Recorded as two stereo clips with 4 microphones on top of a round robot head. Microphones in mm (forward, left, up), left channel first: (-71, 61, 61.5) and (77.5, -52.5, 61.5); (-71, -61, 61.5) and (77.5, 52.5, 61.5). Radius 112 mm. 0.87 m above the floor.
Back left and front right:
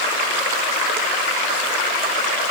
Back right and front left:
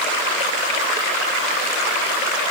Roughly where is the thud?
No thud in this recording.